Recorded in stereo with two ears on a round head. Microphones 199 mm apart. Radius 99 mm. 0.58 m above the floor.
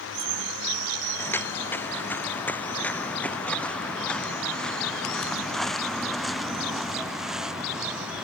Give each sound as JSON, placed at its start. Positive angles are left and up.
{"t": 1.2, "sound": "footsteps", "side_deg": 10}